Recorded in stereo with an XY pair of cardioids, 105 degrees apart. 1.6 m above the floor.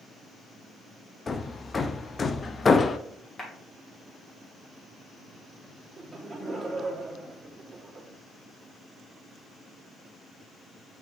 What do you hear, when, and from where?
1.3 s hammering: 35° left, 0.6 m
3.4 s a clap: 25° left, 2.5 m
6.0 s laughter: 5° right, 2.5 m